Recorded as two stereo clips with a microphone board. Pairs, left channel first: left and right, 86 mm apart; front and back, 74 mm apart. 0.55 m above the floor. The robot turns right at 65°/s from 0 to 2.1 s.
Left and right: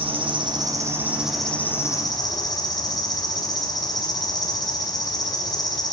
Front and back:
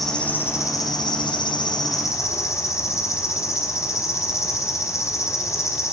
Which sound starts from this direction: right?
An insect, at 0.0 s.